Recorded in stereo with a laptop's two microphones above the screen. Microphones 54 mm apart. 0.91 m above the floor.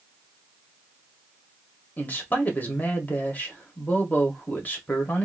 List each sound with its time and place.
2.0 s a man speaking: 30° left (ahead or behind), 1.0 m